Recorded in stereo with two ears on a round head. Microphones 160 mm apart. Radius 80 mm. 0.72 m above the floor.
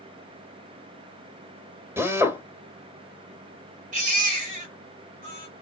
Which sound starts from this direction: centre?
A drill, at 2.0 s.